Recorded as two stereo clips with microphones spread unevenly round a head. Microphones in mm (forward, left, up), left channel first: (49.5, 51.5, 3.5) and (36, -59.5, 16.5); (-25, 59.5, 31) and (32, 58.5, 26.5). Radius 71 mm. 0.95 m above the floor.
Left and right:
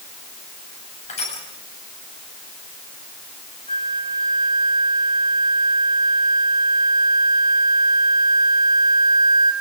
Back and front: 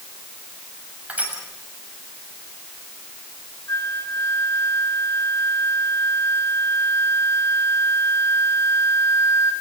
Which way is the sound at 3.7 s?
135° left.